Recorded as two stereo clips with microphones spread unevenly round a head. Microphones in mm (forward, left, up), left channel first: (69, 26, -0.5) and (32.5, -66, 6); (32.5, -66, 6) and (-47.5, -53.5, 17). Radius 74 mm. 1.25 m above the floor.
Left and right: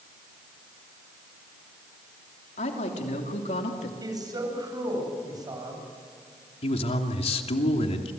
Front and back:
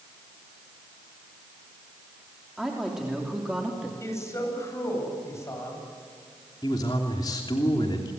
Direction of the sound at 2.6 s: 85° left.